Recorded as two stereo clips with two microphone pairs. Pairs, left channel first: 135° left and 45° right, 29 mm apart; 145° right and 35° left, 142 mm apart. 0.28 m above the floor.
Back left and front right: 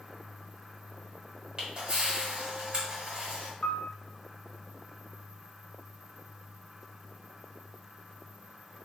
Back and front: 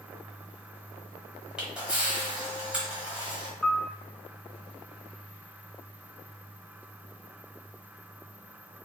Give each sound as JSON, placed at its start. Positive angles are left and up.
{"t": 1.6, "sound": "a camera shutter", "azimuth_deg": -50, "distance_m": 1.4}
{"t": 3.6, "sound": "a piano", "azimuth_deg": 125, "distance_m": 0.5}